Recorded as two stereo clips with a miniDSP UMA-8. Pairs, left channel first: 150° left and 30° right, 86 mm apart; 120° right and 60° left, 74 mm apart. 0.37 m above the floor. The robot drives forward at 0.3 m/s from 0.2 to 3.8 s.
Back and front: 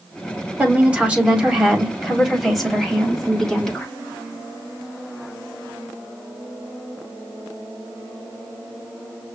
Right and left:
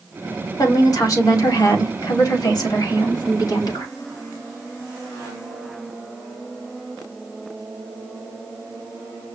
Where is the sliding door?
I don't hear a sliding door.